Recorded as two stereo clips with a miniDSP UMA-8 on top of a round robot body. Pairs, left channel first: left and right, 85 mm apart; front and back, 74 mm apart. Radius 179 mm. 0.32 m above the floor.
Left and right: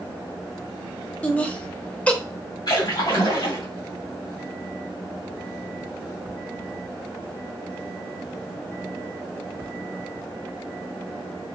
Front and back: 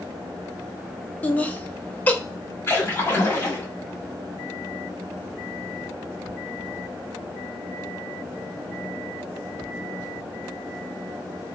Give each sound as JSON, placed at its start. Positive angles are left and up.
{"t": 1.2, "sound": "laughter", "azimuth_deg": 35, "distance_m": 0.9}
{"t": 2.7, "sound": "a splash", "azimuth_deg": 55, "distance_m": 2.5}